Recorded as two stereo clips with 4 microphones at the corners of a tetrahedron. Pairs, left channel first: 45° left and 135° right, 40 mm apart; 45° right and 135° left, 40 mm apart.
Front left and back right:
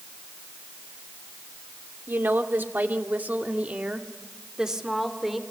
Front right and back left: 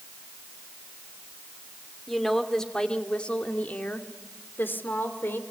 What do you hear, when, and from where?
2.1 s a woman speaking: 130° right, 2.5 m; by 5.4 s 50° right, 3 m